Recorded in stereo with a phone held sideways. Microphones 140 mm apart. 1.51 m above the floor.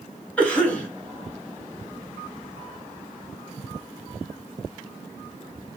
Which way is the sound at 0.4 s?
10° left (ahead or behind).